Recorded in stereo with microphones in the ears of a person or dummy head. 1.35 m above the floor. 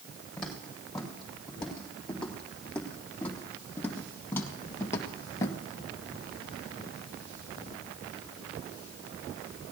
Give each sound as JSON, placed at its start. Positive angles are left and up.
{"t": 0.4, "sound": "footsteps", "side_deg": 0, "distance_m": 7.0}